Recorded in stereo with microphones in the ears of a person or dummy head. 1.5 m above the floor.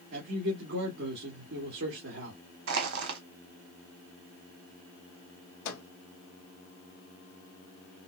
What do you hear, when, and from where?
0.1 s a man speaking: 65° right (ahead or behind), 1.8 m
2.7 s crushing: 65° right (ahead or behind), 1.0 m
5.7 s a microwave: 55° left (ahead or behind), 1.3 m